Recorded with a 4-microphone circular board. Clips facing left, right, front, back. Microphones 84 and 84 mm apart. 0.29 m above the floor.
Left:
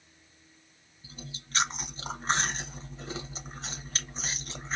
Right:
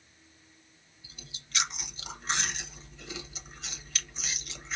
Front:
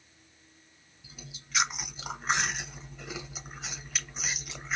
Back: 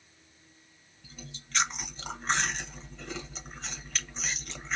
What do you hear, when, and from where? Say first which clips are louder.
1.0 s chewing: left 8 dB, back 2 dB; 80° left, 0.6 m